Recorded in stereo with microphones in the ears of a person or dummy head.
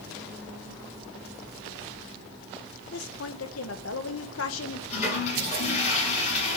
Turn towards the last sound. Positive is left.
turn(degrees=40)  # may be behind; listen again after turning